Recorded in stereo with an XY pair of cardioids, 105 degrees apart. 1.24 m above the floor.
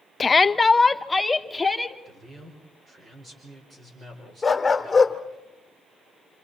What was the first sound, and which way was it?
A shout, 30° left.